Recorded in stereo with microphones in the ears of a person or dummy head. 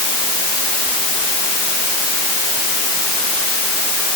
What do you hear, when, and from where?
Only background noise.